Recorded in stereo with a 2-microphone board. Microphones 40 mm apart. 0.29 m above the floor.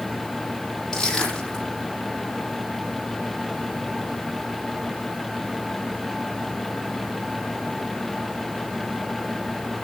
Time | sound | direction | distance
0.9 | crushing | 20° left (ahead or behind) | 8 m